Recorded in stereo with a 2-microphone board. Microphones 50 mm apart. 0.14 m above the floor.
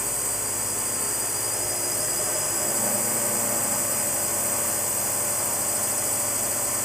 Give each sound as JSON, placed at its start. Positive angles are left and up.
{"t": 0.0, "sound": "a drone", "side_deg": -5}